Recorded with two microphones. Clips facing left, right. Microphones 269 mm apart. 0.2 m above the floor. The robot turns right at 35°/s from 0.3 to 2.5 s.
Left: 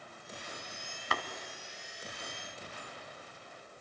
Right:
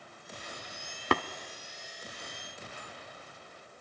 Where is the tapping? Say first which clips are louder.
Right 11 dB; 65° right (ahead or behind), 0.6 m; by 1.2 s 70° right (ahead or behind), 0.6 m.